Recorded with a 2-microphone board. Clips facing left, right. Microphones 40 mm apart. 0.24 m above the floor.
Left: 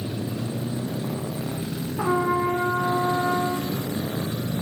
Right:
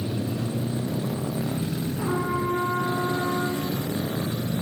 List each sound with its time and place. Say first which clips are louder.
2.0 s a trumpet: left 6 dB; 55° left (ahead or behind), 8 m